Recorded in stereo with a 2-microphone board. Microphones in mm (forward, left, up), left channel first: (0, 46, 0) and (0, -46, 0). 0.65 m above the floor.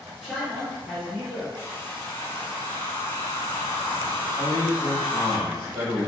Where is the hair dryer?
25° left (ahead or behind), 0.6 m.